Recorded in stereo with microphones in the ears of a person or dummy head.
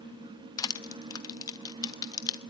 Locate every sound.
0.6 s crushing: 25° left (ahead or behind), 0.7 m